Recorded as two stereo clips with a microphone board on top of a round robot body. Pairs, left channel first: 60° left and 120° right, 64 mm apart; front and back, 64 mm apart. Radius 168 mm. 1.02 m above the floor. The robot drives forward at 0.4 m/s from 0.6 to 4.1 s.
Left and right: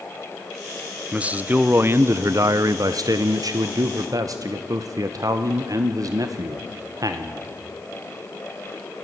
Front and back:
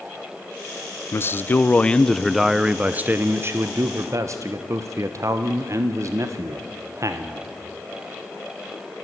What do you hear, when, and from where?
1.1 s a man speaking: 45° right, 0.8 m; by 7.5 s 145° right, 1.0 m